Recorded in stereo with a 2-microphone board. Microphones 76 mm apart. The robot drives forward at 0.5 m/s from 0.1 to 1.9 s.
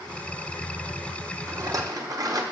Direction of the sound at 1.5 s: 45° right (ahead or behind).